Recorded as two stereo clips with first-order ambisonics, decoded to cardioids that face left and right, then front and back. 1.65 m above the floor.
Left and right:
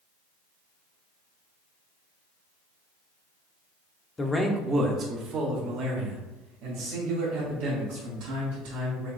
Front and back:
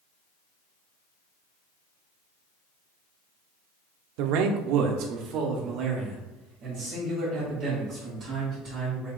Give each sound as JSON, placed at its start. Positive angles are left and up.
{"t": 4.2, "sound": "a man speaking", "azimuth_deg": 165, "distance_m": 0.6}